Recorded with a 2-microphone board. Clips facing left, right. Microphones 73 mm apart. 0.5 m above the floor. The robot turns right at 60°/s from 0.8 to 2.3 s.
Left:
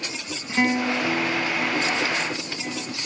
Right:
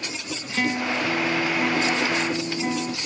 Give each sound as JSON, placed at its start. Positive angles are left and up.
{"t": 0.5, "sound": "a guitar", "azimuth_deg": 150, "distance_m": 0.8}